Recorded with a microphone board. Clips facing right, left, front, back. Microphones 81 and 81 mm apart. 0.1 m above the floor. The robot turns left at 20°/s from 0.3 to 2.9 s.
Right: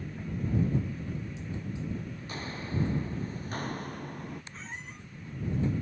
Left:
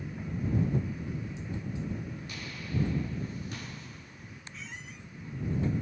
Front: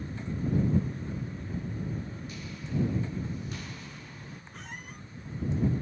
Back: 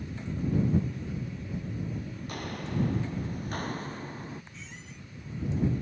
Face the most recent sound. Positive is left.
turn(degrees=-35)